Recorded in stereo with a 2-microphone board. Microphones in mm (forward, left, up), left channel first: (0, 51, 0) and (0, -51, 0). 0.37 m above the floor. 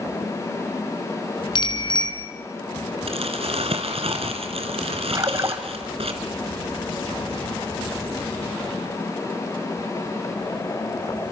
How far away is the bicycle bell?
About 3 m.